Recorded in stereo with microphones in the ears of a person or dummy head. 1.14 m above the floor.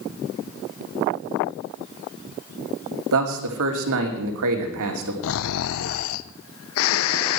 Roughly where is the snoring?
Left.